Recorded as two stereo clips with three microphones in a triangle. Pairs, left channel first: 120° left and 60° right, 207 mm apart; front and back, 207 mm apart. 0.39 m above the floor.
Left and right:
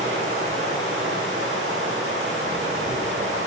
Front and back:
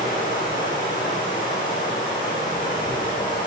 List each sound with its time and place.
0.0 s running water: 50° right, 9 m